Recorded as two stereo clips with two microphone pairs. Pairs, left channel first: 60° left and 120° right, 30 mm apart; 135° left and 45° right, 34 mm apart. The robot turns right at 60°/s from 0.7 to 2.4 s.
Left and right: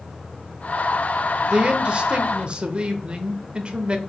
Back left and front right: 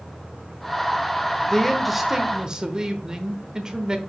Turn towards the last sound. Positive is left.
turn(degrees=-95)